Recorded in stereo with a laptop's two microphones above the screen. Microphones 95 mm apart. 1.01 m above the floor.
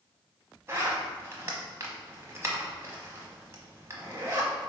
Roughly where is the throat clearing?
No throat clearing in this recording.